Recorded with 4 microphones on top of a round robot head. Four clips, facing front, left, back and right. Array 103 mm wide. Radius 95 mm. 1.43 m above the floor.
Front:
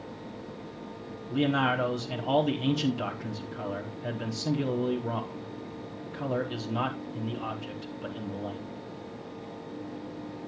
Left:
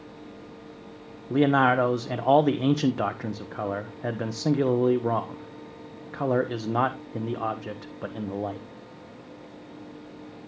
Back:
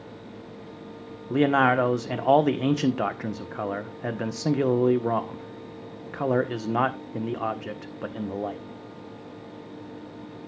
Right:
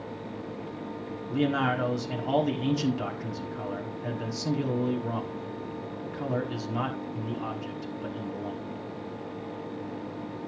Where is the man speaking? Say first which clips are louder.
Left 6 dB, back 6 dB; 135° left, 1.4 m.